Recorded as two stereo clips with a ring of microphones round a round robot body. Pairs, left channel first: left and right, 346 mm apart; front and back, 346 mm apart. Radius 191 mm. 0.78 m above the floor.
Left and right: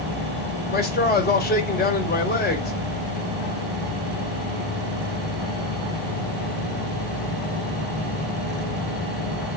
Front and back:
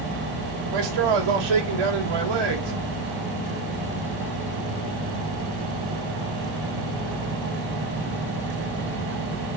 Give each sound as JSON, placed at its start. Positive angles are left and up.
{"t": 0.7, "sound": "a man speaking", "azimuth_deg": 155, "distance_m": 3.0}